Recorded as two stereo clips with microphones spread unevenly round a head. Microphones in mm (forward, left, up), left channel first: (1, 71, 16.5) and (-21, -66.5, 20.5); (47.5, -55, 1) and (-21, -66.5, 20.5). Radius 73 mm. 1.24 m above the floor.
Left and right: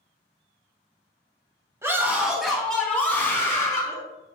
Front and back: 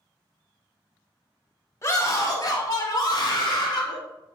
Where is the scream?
30° right, 1.6 m; by 4.0 s 10° left, 3.5 m.